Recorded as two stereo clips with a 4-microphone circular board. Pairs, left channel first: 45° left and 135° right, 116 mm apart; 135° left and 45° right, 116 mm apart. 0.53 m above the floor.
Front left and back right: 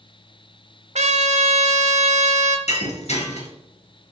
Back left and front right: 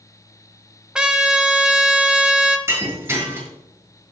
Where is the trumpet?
125° right, 0.6 m.